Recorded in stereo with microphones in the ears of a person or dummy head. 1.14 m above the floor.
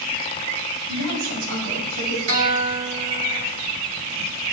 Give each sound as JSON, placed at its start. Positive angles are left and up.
{"t": 0.9, "sound": "a woman speaking", "side_deg": -85, "distance_m": 4.5}
{"t": 2.3, "sound": "a guitar", "side_deg": -85, "distance_m": 3.5}